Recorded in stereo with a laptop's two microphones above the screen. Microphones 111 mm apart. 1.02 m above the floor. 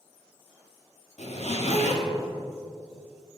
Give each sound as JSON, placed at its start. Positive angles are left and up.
{"t": 1.2, "sound": "a zipper", "side_deg": 80, "distance_m": 1.3}